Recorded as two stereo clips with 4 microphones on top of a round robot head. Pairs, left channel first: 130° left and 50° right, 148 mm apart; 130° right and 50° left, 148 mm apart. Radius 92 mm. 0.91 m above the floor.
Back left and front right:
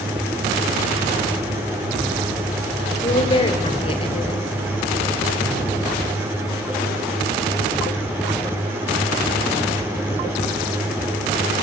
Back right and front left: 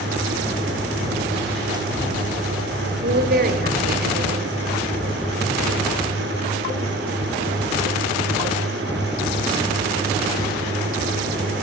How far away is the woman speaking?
About 4 m.